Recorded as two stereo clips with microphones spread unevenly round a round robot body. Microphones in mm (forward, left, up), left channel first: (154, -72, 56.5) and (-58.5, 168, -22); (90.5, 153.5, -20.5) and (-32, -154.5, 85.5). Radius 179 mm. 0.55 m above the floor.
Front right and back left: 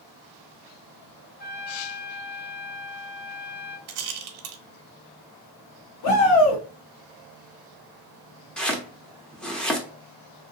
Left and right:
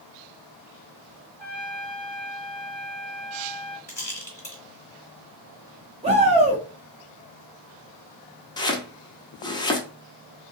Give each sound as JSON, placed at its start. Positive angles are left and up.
{"t": 1.4, "sound": "a trumpet", "azimuth_deg": 10, "distance_m": 1.1}
{"t": 3.9, "sound": "a rattle", "azimuth_deg": 150, "distance_m": 0.6}
{"t": 6.0, "sound": "a shout", "azimuth_deg": -25, "distance_m": 0.8}
{"t": 8.6, "sound": "chopping", "azimuth_deg": 60, "distance_m": 0.6}